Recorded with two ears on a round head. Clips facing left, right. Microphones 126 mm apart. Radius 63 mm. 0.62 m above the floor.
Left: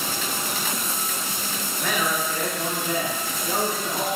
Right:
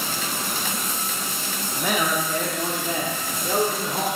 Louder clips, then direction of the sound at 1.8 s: Right 2 dB; 15° right (ahead or behind).